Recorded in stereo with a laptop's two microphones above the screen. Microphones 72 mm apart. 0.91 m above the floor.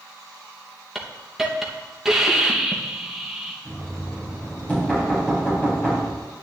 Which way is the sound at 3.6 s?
20° left (ahead or behind).